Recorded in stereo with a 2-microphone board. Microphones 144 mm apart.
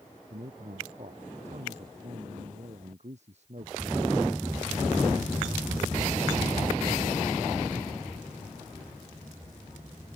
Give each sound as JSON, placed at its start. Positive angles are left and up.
{"t": 0.3, "sound": "a man speaking", "side_deg": -55}